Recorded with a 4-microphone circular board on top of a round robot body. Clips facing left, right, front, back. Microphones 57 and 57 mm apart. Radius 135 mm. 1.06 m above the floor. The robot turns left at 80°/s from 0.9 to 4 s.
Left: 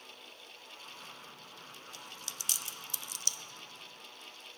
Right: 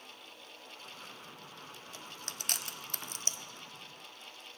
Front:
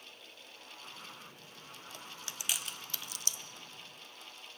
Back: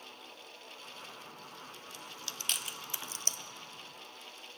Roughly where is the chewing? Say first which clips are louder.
Right 2 dB, even; ahead right.